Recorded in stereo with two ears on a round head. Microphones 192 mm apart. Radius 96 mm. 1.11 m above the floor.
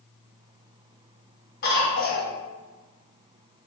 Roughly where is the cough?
Left.